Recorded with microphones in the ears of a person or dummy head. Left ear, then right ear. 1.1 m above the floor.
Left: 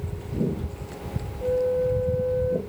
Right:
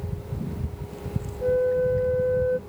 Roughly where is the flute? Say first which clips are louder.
Right 1 dB; right.